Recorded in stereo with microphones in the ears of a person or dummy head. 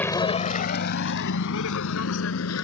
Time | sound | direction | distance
0.0 | a vehicle | 10° left (ahead or behind) | ?